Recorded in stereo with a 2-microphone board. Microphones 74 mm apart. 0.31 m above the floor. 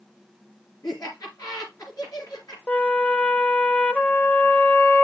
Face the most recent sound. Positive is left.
turn(degrees=15)  # may be behind; listen again after turning